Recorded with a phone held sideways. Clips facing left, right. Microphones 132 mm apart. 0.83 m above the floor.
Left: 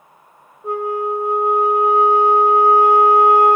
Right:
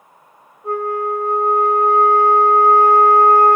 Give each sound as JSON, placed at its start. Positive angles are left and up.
{"t": 0.6, "sound": "a flute", "side_deg": 15, "distance_m": 0.7}